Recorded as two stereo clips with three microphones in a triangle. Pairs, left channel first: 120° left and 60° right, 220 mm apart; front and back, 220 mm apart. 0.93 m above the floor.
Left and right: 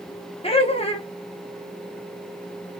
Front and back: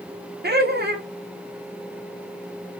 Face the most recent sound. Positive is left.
turn(degrees=170)